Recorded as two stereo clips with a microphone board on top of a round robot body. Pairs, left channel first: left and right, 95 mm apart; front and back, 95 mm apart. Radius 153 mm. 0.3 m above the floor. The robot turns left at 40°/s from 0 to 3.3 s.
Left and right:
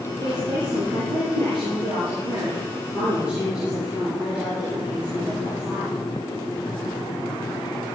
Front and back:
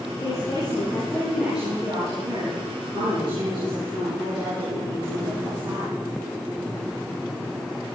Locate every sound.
0.2 s a woman speaking: 45° right, 8 m; by 5.9 s 170° right, 8 m